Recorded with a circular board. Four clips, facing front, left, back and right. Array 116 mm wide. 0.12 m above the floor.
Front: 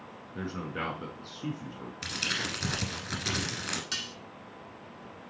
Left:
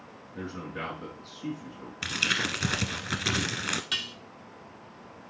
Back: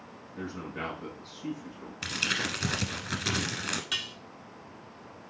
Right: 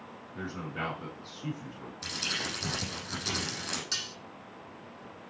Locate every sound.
0.3 s a man speaking: 5° right, 5 m
2.0 s crumpling: 105° left, 1.1 m
3.9 s dishes clattering: 115° left, 0.7 m